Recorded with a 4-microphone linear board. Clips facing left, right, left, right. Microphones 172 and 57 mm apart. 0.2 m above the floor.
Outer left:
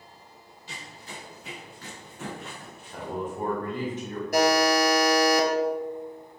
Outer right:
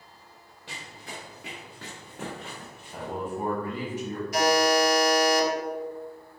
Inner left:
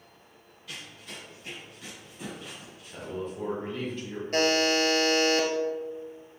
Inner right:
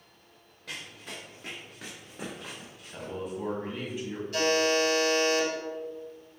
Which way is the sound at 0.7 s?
70° right (ahead or behind).